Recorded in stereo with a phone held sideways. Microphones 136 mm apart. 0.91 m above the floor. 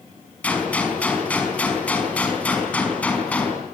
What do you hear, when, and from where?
0.4 s a gunshot: 10° left (ahead or behind), 5 m